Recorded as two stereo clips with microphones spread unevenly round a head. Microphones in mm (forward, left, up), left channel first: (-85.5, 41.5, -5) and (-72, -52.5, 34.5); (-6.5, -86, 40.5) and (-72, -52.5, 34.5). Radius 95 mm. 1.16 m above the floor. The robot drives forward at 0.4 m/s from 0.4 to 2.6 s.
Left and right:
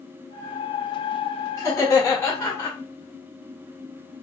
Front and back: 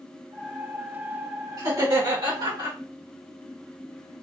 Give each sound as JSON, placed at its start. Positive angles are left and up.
{"t": 1.6, "sound": "laughter", "azimuth_deg": 135, "distance_m": 1.5}